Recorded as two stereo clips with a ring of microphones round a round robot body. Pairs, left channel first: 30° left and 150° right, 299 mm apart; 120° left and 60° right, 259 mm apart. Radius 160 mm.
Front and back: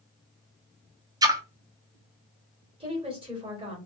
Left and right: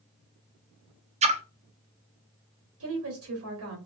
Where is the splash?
85° right, 0.5 m.